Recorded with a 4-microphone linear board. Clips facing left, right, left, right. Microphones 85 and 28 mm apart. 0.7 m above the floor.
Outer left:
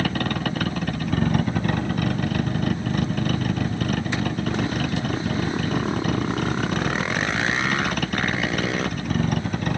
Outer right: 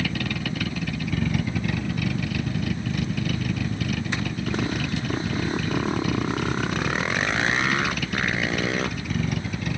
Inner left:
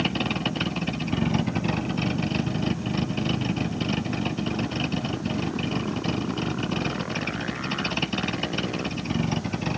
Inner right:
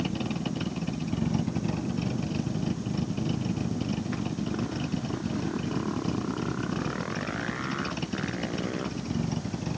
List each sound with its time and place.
0.0 s a vehicle: 45° left (ahead or behind); by 9.8 s 50° left (ahead or behind)